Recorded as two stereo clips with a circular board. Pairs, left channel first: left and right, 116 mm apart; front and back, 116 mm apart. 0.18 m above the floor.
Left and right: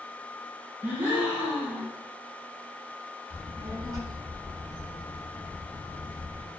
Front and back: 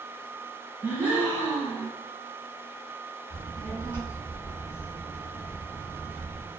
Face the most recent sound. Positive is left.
turn(degrees=-55)